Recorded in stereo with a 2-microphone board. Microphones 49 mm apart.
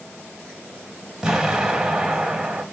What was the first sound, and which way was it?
An explosion, 10° right (ahead or behind).